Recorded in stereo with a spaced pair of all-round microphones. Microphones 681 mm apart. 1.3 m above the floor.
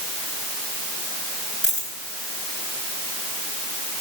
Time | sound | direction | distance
1.6 | a dropped coin | 65° left (ahead or behind) | 9.5 m